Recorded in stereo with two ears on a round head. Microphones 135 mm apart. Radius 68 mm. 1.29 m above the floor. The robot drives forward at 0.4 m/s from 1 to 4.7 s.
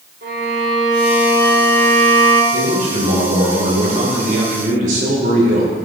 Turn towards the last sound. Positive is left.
turn(degrees=-55)  # may be behind; listen again after turning